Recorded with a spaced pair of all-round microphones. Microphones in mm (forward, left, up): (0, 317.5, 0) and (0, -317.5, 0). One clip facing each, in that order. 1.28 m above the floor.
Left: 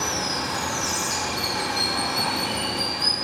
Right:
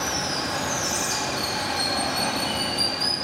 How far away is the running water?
About 1.2 m.